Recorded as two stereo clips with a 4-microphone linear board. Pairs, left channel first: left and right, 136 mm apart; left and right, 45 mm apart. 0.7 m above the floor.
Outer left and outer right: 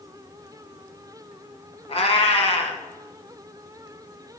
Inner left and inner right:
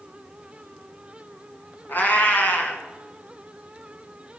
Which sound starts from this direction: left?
A cat meowing, at 1.9 s.